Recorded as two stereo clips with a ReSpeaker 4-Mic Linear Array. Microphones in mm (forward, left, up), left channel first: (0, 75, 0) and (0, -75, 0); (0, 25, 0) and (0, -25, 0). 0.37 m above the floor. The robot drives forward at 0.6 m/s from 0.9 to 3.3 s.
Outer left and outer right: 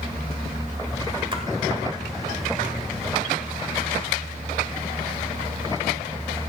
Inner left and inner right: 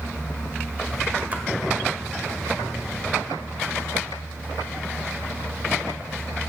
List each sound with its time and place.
1.3 s a splash: 30° right (ahead or behind), 1.5 m